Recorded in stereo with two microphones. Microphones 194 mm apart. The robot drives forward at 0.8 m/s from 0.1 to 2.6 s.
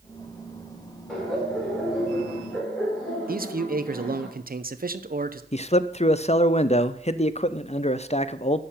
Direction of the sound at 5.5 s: 35° left (ahead or behind).